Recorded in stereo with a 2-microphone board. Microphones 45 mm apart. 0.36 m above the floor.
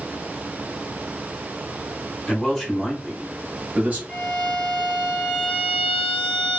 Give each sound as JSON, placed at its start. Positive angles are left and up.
{"t": 2.3, "sound": "a man speaking", "side_deg": 15, "distance_m": 1.3}
{"t": 4.1, "sound": "a violin", "side_deg": -15, "distance_m": 2.0}